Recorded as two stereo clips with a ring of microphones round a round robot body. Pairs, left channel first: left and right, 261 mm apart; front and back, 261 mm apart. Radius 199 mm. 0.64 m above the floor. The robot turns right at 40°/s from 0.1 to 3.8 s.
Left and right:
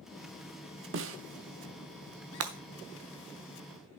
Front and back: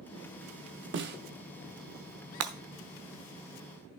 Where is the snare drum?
135° right, 0.8 m; by 1.2 s 125° right, 0.8 m.